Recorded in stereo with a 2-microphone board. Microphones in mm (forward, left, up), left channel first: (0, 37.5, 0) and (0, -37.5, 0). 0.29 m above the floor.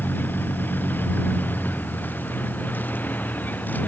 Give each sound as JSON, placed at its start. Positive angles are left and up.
{"t": 0.0, "sound": "a vehicle", "side_deg": 25}